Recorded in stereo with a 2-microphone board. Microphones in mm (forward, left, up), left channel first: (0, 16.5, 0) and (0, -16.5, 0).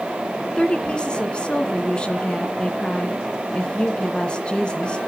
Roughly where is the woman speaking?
Left.